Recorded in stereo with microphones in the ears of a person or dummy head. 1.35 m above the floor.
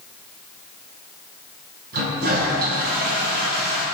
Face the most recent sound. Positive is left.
turn(degrees=-50)  # may be behind; listen again after turning